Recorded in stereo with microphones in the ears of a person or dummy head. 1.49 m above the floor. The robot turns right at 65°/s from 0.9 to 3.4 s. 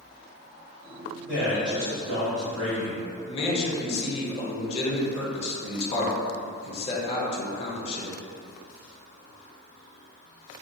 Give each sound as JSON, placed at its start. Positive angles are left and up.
{"t": 1.3, "sound": "a man speaking", "azimuth_deg": -165, "distance_m": 1.3}
{"t": 3.3, "sound": "a man speaking", "side_deg": 30, "distance_m": 0.8}